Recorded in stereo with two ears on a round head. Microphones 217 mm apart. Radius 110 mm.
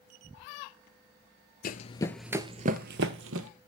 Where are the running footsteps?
35° left (ahead or behind), 0.6 m; by 3.5 s 60° right (ahead or behind), 1.0 m.